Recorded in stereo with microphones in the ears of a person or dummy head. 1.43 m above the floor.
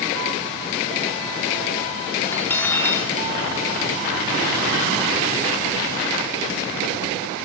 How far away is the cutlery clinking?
About 1.8 m.